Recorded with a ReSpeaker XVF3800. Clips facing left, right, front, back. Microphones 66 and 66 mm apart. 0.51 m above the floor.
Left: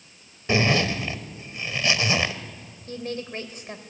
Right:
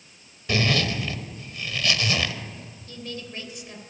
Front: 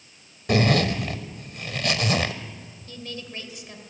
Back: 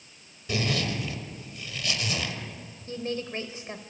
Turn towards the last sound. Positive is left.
turn(degrees=130)